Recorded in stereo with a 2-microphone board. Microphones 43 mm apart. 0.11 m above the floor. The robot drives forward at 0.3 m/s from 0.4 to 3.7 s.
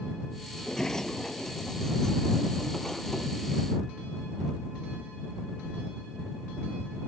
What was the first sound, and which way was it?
A sliding door, 15° left (ahead or behind).